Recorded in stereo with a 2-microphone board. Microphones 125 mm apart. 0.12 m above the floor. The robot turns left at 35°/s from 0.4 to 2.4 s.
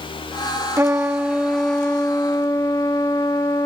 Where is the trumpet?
155° right, 0.8 m; by 3.7 s 150° left, 0.8 m.